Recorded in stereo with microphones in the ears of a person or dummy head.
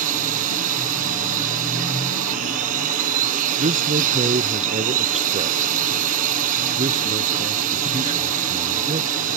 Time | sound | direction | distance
0.0 | a drone | 45° right (ahead or behind) | ?
3.6 | a man speaking | 35° right (ahead or behind) | ?